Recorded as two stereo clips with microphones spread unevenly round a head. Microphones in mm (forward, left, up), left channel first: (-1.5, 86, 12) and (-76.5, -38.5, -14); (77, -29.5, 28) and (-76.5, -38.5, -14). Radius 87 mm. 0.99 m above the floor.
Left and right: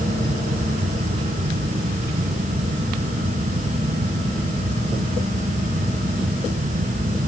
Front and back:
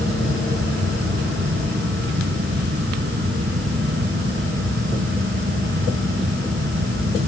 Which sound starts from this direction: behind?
A fan, at 0.0 s.